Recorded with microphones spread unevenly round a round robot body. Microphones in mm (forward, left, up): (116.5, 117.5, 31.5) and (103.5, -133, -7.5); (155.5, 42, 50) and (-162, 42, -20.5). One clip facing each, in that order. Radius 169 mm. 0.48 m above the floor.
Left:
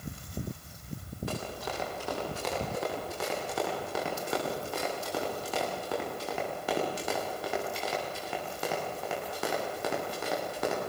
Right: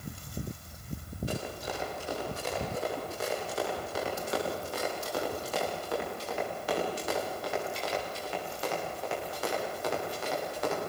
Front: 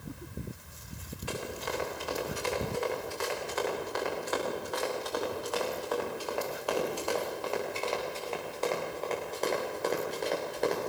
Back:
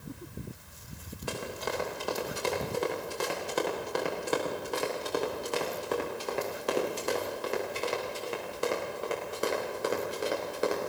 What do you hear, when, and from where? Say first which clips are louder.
1.3 s running footsteps: even, back 1 dB; 140° left, 9.5 m; by 10.9 s 95° left, 9.5 m